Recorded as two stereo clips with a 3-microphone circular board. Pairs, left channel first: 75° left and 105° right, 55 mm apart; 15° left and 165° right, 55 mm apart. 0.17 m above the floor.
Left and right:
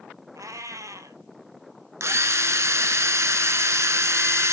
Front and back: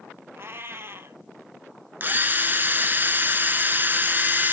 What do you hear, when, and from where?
0.3 s a cat meowing: 120° right, 0.6 m
2.0 s a drill: 115° right, 0.7 m